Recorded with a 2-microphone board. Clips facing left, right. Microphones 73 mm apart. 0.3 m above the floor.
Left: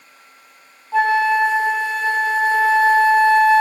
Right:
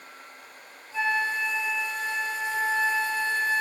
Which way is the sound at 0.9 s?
70° left (ahead or behind).